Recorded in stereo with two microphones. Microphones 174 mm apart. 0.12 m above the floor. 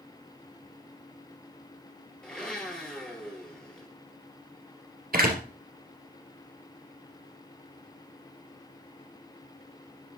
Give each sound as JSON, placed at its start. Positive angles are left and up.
{"t": 2.2, "sound": "a blender", "side_deg": 5, "distance_m": 2.0}
{"t": 5.1, "sound": "a door slam", "side_deg": -60, "distance_m": 2.0}